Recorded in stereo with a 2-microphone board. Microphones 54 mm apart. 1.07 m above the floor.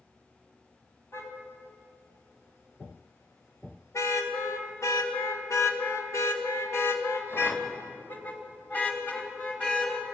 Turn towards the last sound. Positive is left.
turn(degrees=20)  # may be behind; listen again after turning